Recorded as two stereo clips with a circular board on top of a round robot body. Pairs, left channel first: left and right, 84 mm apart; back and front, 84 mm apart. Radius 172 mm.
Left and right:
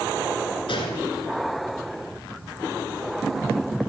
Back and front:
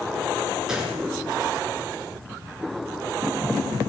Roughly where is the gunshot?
Left.